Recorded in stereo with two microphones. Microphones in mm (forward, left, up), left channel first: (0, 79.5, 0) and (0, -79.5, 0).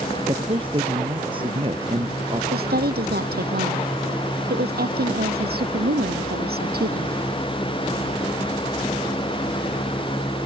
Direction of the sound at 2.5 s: 70° right (ahead or behind).